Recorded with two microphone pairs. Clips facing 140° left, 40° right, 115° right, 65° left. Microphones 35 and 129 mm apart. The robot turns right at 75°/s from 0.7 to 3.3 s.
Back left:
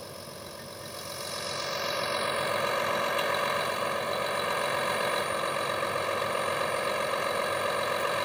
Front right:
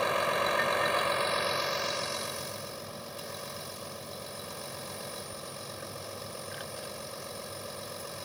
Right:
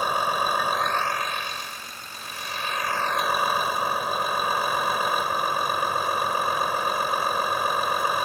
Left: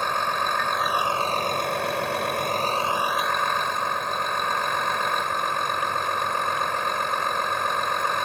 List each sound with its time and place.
0.0 s a vehicle: 30° right; by 8.3 s 165° left